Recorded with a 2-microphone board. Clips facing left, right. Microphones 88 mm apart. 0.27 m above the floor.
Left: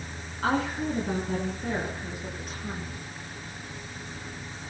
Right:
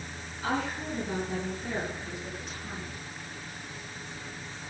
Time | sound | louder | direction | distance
0.4 | a woman speaking | left 5 dB | 70° left (ahead or behind) | 3.5 m